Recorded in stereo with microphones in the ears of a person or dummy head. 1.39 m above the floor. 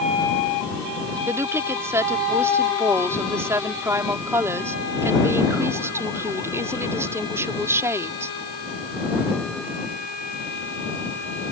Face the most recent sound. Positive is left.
turn(degrees=-5)  # may be behind; listen again after turning